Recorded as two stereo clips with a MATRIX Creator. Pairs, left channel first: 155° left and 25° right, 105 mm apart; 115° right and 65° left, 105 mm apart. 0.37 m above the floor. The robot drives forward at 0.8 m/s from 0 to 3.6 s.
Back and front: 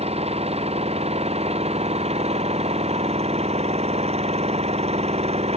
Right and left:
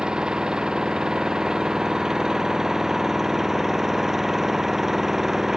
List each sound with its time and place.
0.0 s an engine running: 15° right; by 5.6 s 20° right